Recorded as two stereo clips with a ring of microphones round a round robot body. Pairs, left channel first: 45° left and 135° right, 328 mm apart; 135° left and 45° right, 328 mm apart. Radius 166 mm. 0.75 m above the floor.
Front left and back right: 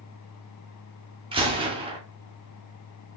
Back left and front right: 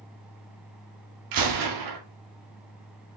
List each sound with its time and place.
1.3 s a gunshot: 60° right, 2.0 m